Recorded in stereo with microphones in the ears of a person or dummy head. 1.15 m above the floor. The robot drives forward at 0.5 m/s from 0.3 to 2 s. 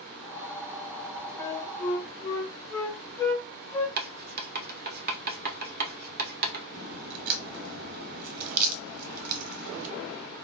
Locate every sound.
1.4 s a flute: 10° left (ahead or behind), 0.6 m; by 3.9 s 5° left (ahead or behind), 0.9 m
4.0 s writing: 50° right (ahead or behind), 0.8 m
6.7 s a crack: 40° right (ahead or behind), 1.0 m